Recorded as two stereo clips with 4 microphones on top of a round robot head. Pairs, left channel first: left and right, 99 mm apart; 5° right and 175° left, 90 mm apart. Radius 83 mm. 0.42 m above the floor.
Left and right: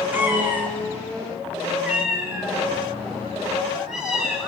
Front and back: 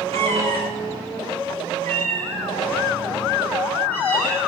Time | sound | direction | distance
0.1 | a cat meowing | 160° right | 5 m